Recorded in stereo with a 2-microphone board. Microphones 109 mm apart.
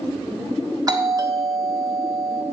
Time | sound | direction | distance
0.9 | a doorbell | 35° right (ahead or behind) | 1.4 m